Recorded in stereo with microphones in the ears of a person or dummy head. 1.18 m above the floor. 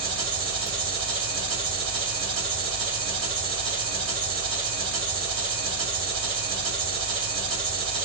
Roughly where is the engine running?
Right.